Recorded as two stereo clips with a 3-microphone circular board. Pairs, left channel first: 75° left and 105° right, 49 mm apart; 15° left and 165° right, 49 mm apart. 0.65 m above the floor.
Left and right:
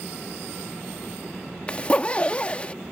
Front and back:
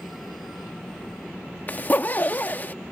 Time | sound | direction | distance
1.7 | a zipper | 25° left | ?